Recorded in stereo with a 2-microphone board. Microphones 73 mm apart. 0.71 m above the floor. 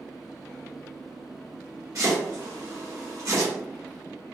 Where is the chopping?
55° right (ahead or behind), 1.9 m.